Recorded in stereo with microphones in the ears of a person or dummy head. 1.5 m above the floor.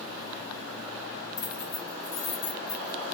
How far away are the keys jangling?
About 1.2 m.